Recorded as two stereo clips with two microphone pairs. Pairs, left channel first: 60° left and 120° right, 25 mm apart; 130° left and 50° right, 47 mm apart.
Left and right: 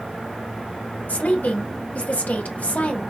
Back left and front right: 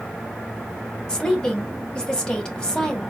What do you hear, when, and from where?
1.1 s a woman speaking: 60° left, 1.6 m